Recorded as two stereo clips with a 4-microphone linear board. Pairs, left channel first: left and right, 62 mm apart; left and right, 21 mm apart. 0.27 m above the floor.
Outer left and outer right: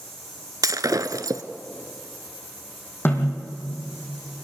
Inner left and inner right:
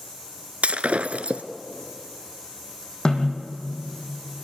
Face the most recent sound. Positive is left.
turn(degrees=40)  # may be behind; listen again after turning